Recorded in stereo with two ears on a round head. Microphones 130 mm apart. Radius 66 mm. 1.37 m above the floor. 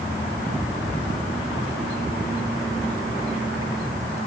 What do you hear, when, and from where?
Only background noise.